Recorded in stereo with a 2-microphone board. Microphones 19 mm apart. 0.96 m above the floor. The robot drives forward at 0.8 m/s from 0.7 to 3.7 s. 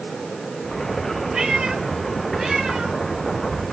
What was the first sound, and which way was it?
A cat meowing, 40° right (ahead or behind).